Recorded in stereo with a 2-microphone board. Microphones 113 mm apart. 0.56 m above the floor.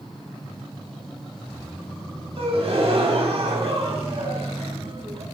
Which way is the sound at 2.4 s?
60° right (ahead or behind).